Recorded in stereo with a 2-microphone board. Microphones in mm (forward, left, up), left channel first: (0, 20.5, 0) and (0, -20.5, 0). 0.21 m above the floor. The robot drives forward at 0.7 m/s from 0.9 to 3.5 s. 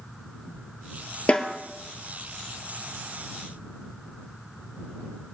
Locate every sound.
1.3 s a snare drum: 30° left (ahead or behind), 1.1 m; by 1.6 s 25° left (ahead or behind), 1.2 m